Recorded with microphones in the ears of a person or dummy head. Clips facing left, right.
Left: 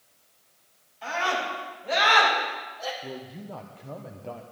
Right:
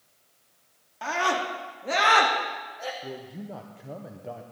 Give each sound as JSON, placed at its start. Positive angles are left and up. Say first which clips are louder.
{"t": 1.0, "sound": "a scream", "louder": "right 2 dB", "side_deg": -80, "distance_m": 3.0}
{"t": 3.0, "sound": "a man speaking", "louder": "even", "side_deg": -5, "distance_m": 0.7}